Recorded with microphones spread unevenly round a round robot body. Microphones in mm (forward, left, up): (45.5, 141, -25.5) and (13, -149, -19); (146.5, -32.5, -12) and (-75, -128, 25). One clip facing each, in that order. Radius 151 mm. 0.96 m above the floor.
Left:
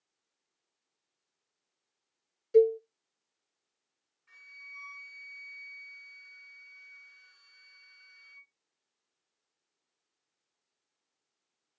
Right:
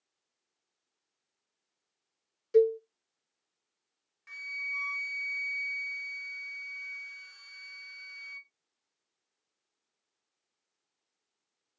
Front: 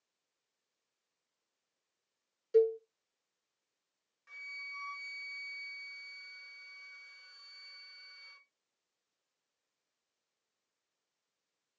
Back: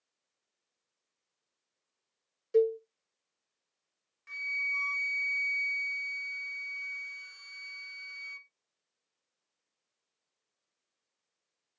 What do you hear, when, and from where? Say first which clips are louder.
2.5 s a cowbell: left 1 dB, back 1 dB; 90° right, 0.7 m
4.3 s a flute: right 12 dB, back 10 dB; 95° right, 0.7 m